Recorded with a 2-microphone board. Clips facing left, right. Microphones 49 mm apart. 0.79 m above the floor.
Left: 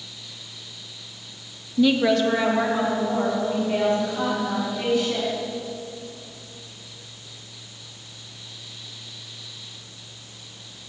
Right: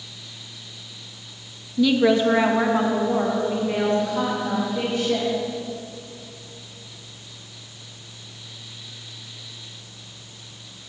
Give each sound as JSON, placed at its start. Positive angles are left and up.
{"t": 1.8, "sound": "a woman speaking", "side_deg": 20, "distance_m": 0.5}